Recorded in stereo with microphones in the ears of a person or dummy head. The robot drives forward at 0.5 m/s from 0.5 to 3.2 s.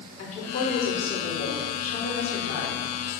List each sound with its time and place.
0.2 s a woman speaking: 40° left (ahead or behind), 3.5 m; by 2.9 s 60° left (ahead or behind), 2.5 m